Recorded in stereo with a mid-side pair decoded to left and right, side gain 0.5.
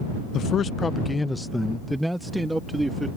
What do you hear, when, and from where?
0.3 s a man speaking: 65° left; by 3.1 s 10° right